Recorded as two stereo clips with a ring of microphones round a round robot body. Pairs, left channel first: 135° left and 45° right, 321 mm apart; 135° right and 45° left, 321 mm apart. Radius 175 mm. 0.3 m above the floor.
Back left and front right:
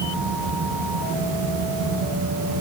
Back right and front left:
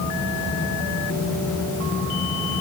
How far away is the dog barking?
I don't hear a dog barking.